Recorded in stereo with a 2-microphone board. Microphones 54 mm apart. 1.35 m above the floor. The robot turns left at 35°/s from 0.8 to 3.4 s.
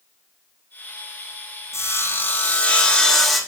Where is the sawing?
55° left, 2 m; by 3.4 s straight ahead, 2 m.